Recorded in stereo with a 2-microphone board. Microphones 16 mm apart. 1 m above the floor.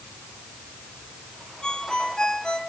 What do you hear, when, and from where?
1.6 s a ringtone: 80° left, 3 m